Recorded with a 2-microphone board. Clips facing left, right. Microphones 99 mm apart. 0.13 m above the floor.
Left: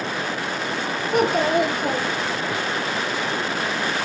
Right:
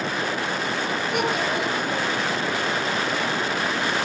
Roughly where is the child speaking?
Left.